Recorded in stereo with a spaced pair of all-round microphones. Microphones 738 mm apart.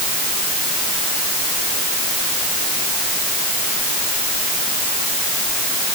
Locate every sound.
Only background noise.